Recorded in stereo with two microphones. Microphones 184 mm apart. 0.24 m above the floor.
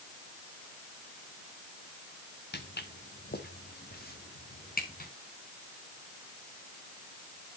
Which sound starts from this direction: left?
Footsteps, at 2.5 s.